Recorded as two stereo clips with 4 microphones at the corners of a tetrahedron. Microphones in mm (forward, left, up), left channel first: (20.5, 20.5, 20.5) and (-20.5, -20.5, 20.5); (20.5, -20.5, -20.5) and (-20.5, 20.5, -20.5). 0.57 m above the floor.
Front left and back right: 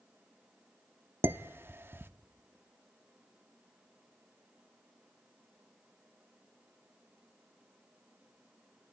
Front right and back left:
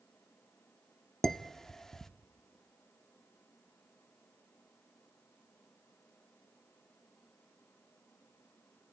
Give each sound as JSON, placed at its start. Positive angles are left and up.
{"t": 1.2, "sound": "dishes clattering", "azimuth_deg": -125, "distance_m": 0.5}